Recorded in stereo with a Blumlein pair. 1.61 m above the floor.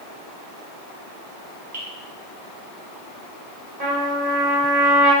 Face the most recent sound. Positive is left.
turn(degrees=-40)